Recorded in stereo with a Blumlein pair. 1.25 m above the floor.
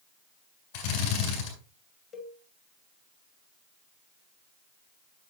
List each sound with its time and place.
0.7 s a drill: 50° left, 3.5 m
2.1 s a cowbell: 25° left, 1.9 m